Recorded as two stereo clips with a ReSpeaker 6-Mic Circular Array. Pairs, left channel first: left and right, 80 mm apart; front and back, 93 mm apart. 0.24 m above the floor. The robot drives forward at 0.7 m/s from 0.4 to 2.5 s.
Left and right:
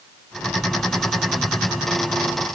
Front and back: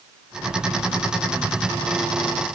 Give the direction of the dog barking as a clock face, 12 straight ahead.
No dog barking in this recording.